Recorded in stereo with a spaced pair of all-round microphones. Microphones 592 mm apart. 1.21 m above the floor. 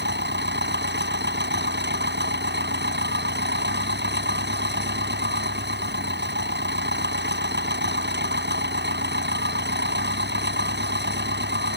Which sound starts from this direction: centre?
An engine running, at 0.0 s.